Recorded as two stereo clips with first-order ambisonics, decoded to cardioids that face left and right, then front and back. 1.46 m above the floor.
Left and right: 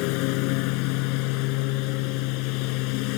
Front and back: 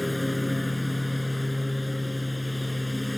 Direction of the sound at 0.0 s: 85° left.